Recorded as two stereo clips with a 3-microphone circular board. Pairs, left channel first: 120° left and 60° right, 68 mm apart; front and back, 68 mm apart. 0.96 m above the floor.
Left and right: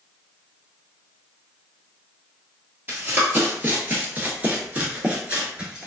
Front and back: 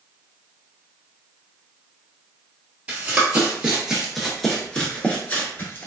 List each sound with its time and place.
2.9 s running footsteps: 115° right, 1.4 m; by 5.9 s 10° left, 1.1 m